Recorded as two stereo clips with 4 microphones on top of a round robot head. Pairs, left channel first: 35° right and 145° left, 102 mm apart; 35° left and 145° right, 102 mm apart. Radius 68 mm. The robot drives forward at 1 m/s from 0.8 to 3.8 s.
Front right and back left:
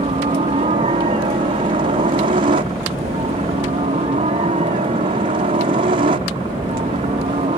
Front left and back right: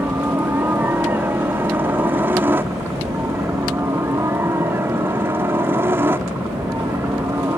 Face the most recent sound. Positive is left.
turn(degrees=150)